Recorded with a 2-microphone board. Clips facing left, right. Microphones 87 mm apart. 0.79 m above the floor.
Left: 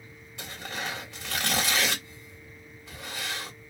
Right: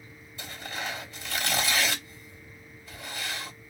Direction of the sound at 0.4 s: 80° left.